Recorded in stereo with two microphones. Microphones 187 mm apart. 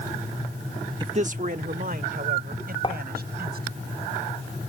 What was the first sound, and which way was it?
A man speaking, 25° right (ahead or behind).